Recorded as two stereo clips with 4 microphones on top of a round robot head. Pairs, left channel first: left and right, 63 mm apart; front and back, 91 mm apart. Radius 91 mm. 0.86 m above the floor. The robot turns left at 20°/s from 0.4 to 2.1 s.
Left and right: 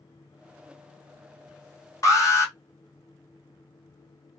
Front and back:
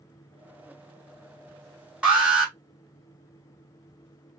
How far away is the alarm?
About 1.6 m.